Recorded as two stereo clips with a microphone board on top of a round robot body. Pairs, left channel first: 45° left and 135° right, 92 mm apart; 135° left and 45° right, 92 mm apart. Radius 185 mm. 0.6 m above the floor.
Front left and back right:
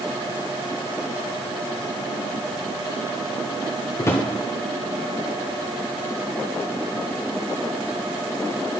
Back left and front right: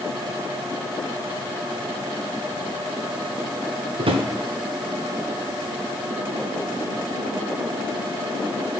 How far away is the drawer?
About 0.6 m.